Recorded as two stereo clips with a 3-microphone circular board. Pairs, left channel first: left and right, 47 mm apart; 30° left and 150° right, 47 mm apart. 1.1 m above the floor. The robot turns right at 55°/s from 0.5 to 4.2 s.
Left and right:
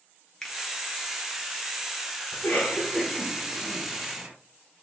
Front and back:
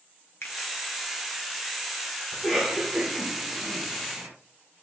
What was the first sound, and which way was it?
A finger snap, 15° left.